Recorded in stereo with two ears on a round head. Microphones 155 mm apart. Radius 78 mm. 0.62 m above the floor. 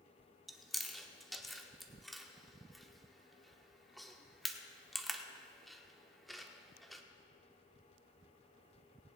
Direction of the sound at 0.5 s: Centre (ahead or behind).